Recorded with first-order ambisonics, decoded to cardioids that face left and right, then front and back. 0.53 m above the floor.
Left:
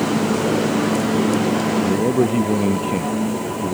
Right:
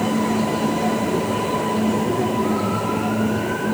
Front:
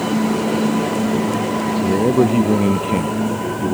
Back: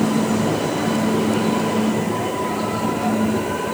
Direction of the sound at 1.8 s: 25° left.